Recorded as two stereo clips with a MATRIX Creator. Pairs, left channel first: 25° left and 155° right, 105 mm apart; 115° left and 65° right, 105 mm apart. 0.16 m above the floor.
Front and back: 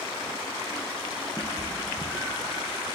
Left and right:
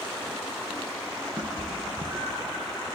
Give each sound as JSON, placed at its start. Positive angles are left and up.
{"t": 1.4, "sound": "a cat meowing", "azimuth_deg": -50, "distance_m": 0.8}